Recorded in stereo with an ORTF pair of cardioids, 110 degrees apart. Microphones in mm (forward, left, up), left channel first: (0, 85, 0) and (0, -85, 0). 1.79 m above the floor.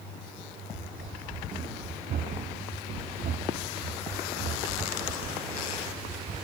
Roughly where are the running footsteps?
Ahead right.